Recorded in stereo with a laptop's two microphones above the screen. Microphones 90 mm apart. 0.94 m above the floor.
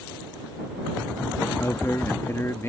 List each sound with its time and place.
1.6 s a man speaking: 30° left (ahead or behind)